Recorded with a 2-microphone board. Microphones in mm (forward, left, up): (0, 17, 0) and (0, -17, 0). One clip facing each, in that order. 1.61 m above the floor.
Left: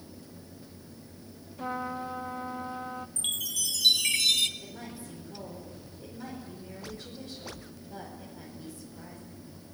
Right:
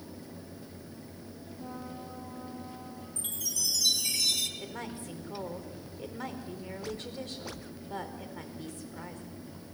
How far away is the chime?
About 1.3 m.